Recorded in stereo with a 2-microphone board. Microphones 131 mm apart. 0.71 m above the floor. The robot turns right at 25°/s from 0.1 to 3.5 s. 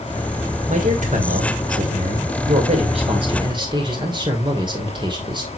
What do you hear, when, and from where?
0.7 s a man speaking: 110° right, 2.5 m; by 5.5 s 40° right, 2.5 m